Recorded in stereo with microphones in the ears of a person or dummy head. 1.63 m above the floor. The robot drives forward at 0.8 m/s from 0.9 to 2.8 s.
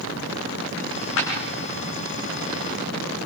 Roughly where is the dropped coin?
Left.